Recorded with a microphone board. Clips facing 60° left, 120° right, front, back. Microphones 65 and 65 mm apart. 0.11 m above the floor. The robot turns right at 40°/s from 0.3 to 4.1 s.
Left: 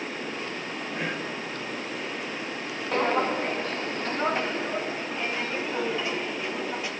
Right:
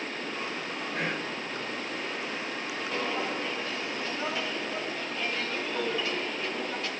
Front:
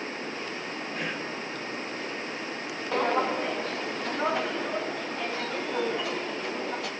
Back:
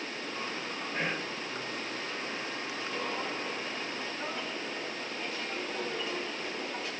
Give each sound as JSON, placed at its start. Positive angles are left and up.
{"t": 0.9, "sound": "whispering", "azimuth_deg": -135, "distance_m": 3.0}
{"t": 2.9, "sound": "footsteps", "azimuth_deg": 20, "distance_m": 0.7}